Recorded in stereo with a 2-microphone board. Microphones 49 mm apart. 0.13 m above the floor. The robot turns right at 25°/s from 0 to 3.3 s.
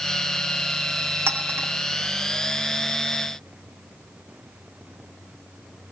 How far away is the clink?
About 1.9 m.